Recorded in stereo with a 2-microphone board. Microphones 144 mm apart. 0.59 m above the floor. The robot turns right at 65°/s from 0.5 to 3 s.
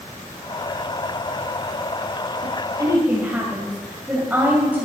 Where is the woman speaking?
50° right, 2.5 m; by 4.9 s 10° right, 2.5 m.